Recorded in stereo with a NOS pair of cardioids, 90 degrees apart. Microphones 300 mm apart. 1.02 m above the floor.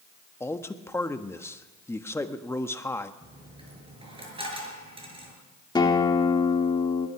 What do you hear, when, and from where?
0.4 s a man speaking: 10° left, 1.2 m
3.2 s a dropped coin: 20° right, 6 m
5.8 s a guitar: 15° left, 2 m